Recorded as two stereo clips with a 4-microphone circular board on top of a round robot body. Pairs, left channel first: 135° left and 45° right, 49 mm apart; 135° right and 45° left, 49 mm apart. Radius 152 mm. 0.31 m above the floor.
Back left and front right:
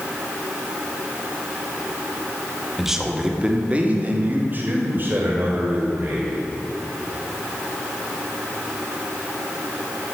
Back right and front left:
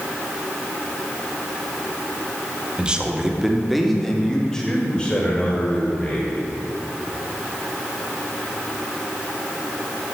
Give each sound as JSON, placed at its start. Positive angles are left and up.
{"t": 2.8, "sound": "a man speaking", "azimuth_deg": 35, "distance_m": 1.5}